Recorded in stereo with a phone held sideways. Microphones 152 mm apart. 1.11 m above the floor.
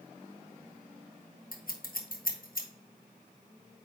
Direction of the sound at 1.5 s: 70° left (ahead or behind).